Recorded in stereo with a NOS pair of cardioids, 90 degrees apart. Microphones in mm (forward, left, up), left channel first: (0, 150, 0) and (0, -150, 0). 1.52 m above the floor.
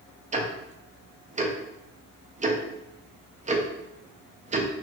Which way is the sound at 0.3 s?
25° right.